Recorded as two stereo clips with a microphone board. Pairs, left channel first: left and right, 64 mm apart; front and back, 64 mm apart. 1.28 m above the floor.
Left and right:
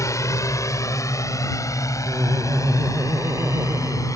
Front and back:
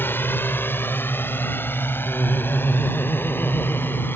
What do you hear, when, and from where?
0.0 s a drone: 55° left; by 4.2 s 60° left
2.1 s laughter: 55° right